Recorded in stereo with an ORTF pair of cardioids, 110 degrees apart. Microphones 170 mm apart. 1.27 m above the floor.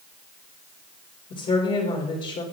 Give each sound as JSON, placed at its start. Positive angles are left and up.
{"t": 1.3, "sound": "a woman speaking", "azimuth_deg": 55, "distance_m": 3.0}